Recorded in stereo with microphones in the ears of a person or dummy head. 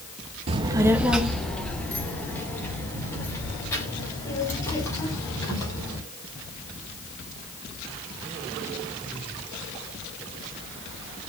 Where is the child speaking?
30° right (ahead or behind), 0.5 m; by 6.0 s 20° left (ahead or behind), 5 m.